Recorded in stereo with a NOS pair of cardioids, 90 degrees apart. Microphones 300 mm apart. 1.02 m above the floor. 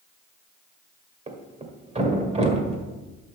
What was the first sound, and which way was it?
A thud, 20° right.